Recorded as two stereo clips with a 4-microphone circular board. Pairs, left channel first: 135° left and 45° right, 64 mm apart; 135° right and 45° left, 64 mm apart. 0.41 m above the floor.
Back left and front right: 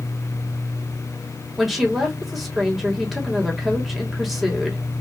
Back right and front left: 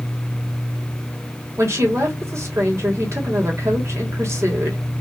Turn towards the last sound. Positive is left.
turn(degrees=40)